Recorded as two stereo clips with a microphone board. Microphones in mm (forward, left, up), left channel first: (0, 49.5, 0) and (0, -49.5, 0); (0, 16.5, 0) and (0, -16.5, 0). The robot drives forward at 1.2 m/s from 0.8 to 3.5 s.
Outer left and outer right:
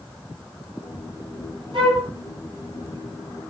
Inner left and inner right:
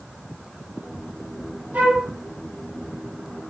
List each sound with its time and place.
1.7 s a flute: 55° right (ahead or behind), 5 m; by 2.1 s 50° right (ahead or behind), 5 m